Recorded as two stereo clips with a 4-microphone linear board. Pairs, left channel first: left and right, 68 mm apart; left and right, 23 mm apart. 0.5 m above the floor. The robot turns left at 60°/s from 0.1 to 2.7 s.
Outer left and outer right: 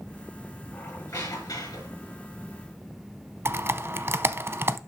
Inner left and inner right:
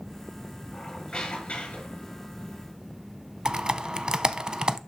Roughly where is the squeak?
Behind left.